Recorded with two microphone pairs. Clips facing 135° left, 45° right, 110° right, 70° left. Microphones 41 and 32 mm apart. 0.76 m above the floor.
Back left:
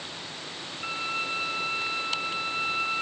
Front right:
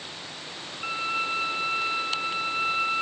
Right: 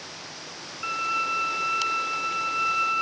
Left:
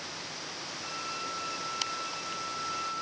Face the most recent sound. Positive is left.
turn(degrees=-120)